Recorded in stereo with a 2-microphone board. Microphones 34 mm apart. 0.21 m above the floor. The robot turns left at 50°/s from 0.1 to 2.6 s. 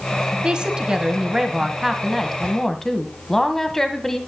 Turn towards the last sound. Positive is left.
turn(degrees=10)  # may be behind; listen again after turning